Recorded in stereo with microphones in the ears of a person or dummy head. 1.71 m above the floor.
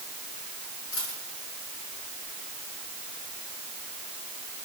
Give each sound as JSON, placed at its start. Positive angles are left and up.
{"t": 0.9, "sound": "a dropped coin", "side_deg": 75, "distance_m": 7.5}